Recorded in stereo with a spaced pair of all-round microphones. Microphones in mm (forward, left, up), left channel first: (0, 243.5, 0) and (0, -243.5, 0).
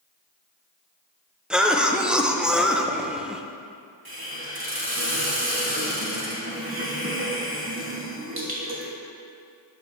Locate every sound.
1.5 s a cough: centre (ahead or behind), 0.6 m
4.0 s a hiss: 50° right (ahead or behind), 1.6 m